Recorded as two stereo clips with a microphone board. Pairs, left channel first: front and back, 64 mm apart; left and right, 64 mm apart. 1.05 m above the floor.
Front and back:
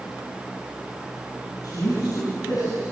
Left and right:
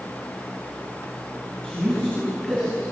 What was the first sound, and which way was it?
A man speaking, 15° left.